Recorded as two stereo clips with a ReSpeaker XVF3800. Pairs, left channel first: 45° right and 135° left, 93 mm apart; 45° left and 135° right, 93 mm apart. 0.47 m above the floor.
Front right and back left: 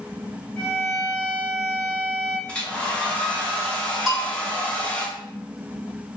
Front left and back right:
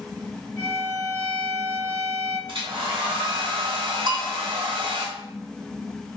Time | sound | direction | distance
0.6 | a violin | 125° right | 1.1 m
2.5 | a hair dryer | 120° right | 1.1 m
4.1 | a bell | 135° right | 1.5 m